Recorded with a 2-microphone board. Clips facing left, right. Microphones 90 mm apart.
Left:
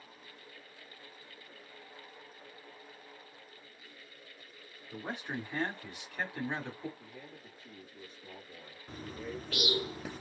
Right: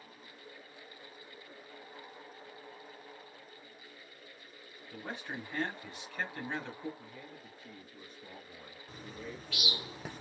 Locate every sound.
4.9 s a man speaking: 15° left (ahead or behind), 1.0 m
7.0 s a man speaking: 50° right (ahead or behind), 1.6 m
8.9 s a bird: 45° left (ahead or behind), 0.6 m